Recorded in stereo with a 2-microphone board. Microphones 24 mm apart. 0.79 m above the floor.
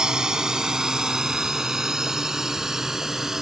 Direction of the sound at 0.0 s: 20° right (ahead or behind).